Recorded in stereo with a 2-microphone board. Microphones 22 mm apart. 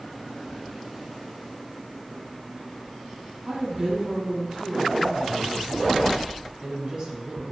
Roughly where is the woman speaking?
Right.